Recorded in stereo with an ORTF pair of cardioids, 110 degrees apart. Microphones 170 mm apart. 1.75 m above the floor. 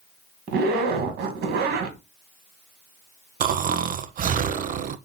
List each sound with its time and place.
0.5 s a zipper: 65° right, 2 m
3.4 s snoring: 50° right, 0.8 m